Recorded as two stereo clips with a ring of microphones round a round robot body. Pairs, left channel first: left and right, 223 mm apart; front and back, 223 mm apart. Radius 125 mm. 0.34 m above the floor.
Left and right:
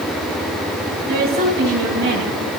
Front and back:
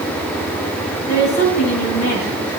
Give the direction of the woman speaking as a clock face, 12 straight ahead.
2 o'clock.